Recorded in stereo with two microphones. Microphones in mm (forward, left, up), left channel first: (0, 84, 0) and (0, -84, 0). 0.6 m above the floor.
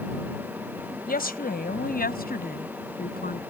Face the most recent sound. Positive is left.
turn(degrees=65)  # may be behind; listen again after turning